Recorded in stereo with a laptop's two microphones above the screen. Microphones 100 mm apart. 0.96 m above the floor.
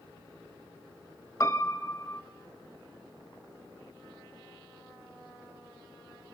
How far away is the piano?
About 1.5 m.